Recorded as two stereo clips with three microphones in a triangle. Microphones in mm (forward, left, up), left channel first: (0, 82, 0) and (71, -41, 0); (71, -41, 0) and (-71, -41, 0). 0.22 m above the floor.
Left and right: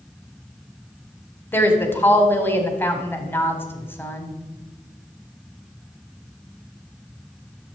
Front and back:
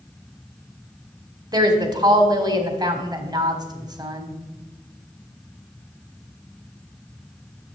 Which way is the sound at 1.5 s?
175° left.